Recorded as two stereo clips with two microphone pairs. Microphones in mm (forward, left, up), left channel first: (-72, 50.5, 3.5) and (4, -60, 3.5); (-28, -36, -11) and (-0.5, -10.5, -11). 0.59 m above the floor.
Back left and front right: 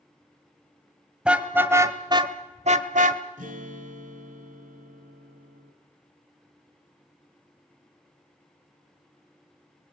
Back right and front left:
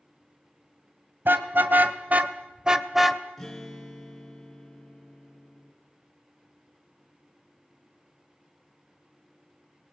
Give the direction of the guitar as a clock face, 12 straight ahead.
2 o'clock.